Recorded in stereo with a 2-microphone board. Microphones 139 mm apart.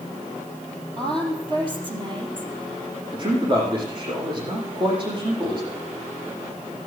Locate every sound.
1.0 s a woman speaking: 35° right (ahead or behind), 3.5 m
3.1 s a man speaking: 35° right (ahead or behind), 8 m